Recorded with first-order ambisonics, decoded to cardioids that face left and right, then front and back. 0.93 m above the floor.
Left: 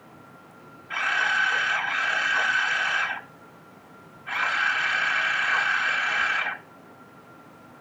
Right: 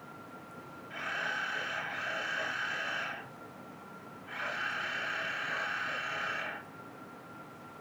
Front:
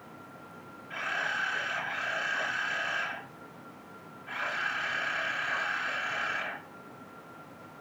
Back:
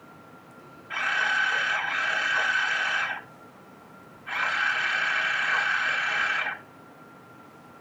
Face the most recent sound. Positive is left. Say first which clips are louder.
# left 12 dB, back 7 dB
turn(degrees=130)